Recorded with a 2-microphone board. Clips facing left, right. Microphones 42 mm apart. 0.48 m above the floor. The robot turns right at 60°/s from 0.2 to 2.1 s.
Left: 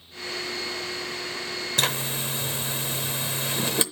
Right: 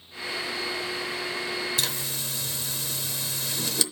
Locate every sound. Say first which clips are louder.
1.8 s a zipper: left 5 dB; 50° left (ahead or behind), 0.8 m; by 3.8 s 35° left (ahead or behind), 0.8 m